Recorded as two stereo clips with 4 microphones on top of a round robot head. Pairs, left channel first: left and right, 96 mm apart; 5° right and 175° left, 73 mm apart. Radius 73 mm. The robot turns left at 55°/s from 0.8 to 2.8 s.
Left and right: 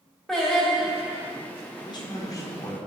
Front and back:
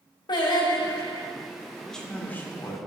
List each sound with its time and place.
0.3 s singing: 5° left, 1.6 m; by 1.3 s 20° right, 1.6 m
1.8 s a man speaking: 85° left, 1.7 m; by 2.8 s 30° left, 1.7 m